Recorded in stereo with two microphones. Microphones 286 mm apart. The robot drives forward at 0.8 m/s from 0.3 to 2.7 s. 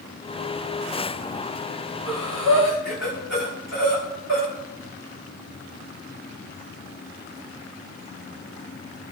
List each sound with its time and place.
2.1 s breathing: 60° right (ahead or behind), 6.5 m; by 4.5 s 55° right (ahead or behind), 7 m